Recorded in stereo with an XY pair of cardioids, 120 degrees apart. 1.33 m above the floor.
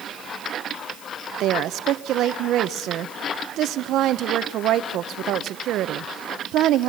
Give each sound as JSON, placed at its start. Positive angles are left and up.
{"t": 1.4, "sound": "a woman speaking", "azimuth_deg": -65, "distance_m": 0.7}